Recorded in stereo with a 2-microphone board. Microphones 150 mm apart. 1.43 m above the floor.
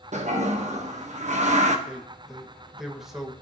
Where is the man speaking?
5° right (ahead or behind), 1.5 m.